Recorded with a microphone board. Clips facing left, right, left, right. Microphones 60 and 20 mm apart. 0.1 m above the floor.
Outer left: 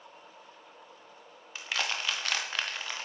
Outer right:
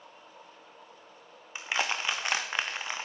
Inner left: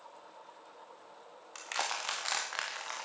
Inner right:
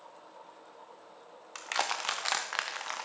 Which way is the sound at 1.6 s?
20° right (ahead or behind).